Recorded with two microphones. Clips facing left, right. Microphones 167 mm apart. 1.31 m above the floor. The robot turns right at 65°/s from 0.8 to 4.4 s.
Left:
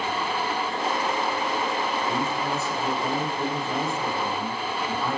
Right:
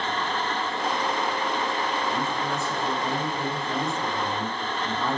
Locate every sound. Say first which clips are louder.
2.1 s a man speaking: left 1 dB; 80° left, 2.5 m; by 5.2 s 125° right, 2.5 m